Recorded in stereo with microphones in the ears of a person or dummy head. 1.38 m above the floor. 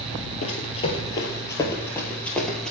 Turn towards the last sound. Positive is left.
turn(degrees=0)  # may be behind; listen again after turning